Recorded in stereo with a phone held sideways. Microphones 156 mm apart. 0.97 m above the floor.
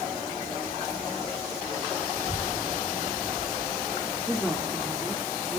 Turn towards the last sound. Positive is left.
turn(degrees=0)  # may be behind; listen again after turning